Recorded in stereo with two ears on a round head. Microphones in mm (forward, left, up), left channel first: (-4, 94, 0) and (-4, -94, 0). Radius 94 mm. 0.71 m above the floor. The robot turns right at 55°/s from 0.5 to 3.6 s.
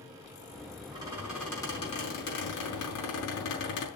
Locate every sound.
0.9 s a squeak: 25° right, 5.5 m; by 3.9 s 125° left, 5.5 m